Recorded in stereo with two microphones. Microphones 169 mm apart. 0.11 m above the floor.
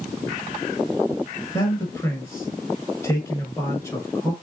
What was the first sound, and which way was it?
A man speaking, 15° left (ahead or behind).